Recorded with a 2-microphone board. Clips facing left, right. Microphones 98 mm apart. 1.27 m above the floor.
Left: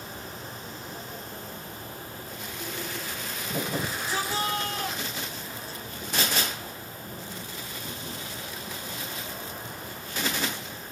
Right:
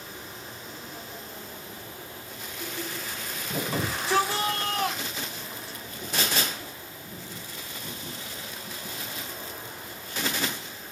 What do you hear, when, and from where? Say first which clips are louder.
3.7 s a shout: right 9 dB; 85° right, 4.5 m